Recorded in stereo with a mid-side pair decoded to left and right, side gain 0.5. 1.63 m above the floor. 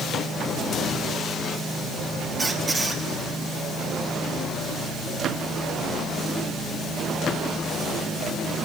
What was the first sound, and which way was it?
A squeak, 15° right.